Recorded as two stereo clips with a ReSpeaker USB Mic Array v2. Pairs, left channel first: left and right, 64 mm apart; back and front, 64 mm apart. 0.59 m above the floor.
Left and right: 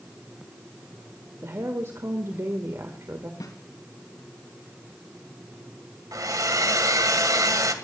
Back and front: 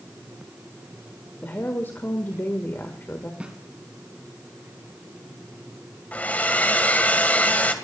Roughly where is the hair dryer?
Behind right.